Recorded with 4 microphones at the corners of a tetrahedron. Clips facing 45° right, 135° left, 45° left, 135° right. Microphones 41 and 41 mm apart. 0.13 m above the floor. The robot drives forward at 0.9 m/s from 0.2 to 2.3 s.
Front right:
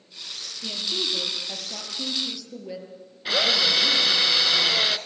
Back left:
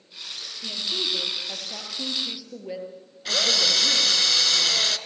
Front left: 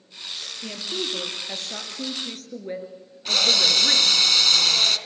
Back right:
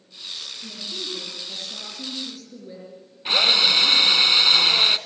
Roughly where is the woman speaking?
Ahead left.